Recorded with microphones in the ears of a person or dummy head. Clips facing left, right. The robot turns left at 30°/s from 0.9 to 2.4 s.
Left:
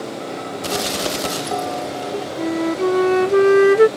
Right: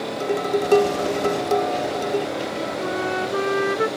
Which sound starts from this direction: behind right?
Dishes clattering, at 0.2 s.